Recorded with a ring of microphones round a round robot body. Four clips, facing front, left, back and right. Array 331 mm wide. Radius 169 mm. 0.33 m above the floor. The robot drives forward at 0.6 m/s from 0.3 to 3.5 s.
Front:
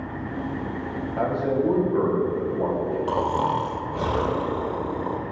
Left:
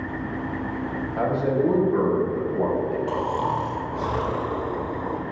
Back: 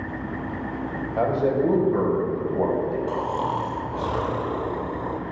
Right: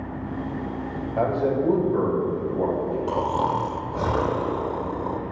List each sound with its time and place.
1.2 s a man speaking: 135° right, 1.2 m; by 3.0 s 160° right, 2.0 m
3.1 s snoring: 30° right, 0.6 m; by 5.2 s 60° right, 0.5 m